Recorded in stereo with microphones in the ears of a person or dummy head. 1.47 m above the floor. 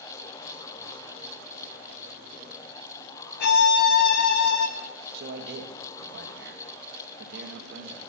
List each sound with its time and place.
3.4 s a violin: 60° left (ahead or behind), 0.7 m
5.1 s a man speaking: 60° right (ahead or behind), 1.5 m